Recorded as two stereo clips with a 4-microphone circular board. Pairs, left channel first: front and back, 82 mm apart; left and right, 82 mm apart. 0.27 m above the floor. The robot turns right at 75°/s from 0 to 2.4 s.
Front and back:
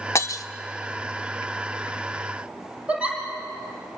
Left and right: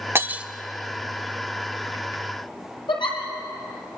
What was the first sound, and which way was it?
Breaking glass, 40° right.